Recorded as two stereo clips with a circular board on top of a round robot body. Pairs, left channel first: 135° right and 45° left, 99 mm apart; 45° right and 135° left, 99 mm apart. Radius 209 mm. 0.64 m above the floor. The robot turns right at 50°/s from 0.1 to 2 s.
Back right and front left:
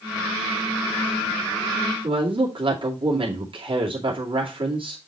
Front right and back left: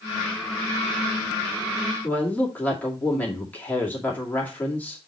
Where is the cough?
I don't hear a cough.